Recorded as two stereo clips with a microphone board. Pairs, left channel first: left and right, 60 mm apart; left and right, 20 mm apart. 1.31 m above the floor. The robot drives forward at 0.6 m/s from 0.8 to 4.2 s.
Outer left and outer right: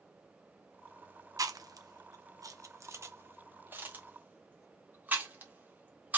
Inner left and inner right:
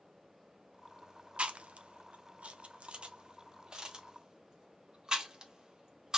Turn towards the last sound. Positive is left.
turn(degrees=-30)  # may be behind; listen again after turning